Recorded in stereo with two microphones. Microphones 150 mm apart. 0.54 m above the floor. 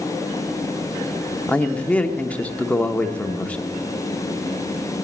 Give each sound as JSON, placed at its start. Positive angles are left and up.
{"t": 1.5, "sound": "a man speaking", "side_deg": 10, "distance_m": 0.9}